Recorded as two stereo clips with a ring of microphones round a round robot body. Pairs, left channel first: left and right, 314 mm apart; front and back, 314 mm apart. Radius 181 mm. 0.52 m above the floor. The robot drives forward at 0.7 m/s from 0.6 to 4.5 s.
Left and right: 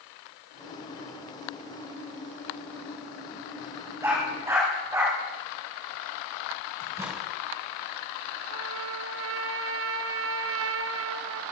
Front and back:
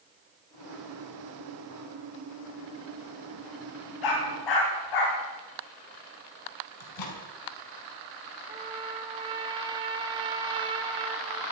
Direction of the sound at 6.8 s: 10° right.